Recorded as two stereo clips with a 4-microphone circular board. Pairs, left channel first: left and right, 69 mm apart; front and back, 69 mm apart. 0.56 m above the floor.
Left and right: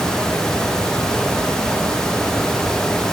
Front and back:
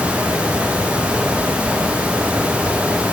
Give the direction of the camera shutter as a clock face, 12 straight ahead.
I don't hear a camera shutter.